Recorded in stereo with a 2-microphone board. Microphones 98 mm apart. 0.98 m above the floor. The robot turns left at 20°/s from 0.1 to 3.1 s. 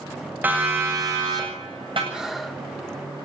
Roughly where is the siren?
Centre.